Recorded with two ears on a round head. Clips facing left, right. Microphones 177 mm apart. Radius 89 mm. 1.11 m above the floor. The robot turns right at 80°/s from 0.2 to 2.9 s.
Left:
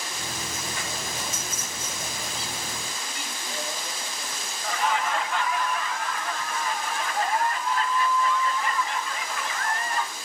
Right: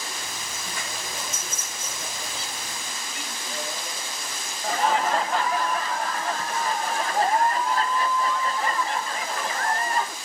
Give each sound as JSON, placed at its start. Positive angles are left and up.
{"t": 4.6, "sound": "laughter", "side_deg": -30, "distance_m": 0.7}